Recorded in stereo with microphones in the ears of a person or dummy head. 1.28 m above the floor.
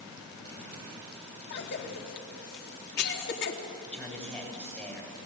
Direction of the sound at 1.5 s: 55° left (ahead or behind).